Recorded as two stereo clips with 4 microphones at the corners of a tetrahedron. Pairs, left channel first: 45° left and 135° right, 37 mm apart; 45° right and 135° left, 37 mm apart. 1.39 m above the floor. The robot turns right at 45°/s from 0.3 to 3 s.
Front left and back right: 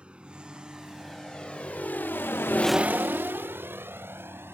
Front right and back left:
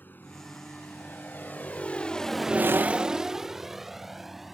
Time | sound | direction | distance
0.0 | a vehicle | 75° right | ?